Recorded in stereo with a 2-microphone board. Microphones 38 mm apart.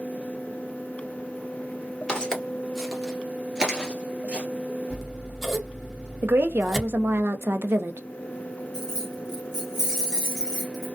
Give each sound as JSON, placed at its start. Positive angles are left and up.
{"t": 2.1, "sound": "footsteps", "side_deg": 20, "distance_m": 1.5}
{"t": 4.9, "sound": "scissors", "side_deg": 5, "distance_m": 1.2}
{"t": 6.2, "sound": "a woman speaking", "side_deg": -70, "distance_m": 0.5}
{"t": 8.7, "sound": "keys jangling", "side_deg": -10, "distance_m": 1.1}